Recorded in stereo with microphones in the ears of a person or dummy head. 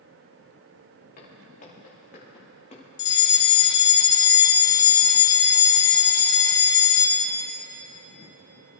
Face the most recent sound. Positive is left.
turn(degrees=20)  # may be behind; listen again after turning